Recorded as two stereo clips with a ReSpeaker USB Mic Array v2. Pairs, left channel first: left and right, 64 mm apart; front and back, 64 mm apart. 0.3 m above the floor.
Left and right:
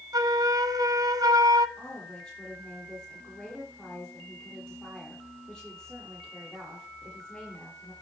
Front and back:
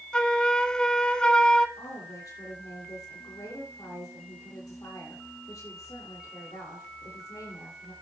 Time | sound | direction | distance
0.1 | a flute | 80° right | 0.8 m
1.8 | a woman speaking | 10° left | 8 m